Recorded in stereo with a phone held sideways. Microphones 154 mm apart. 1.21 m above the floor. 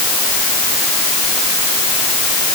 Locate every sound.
Only background noise.